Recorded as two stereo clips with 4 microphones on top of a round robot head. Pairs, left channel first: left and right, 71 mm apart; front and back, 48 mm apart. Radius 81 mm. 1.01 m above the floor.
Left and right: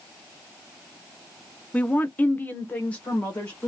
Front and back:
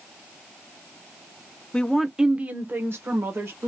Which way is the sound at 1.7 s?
45° left.